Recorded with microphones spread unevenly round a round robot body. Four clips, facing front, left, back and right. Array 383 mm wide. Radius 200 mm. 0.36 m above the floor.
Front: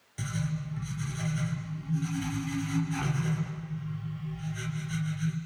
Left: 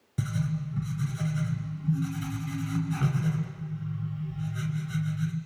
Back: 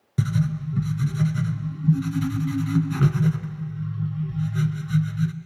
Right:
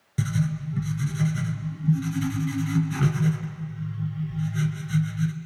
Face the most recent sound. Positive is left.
turn(degrees=-165)